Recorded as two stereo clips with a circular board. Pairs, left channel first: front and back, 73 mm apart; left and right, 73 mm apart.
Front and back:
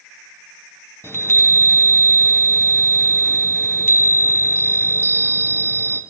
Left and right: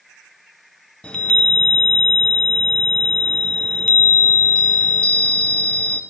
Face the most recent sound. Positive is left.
turn(degrees=25)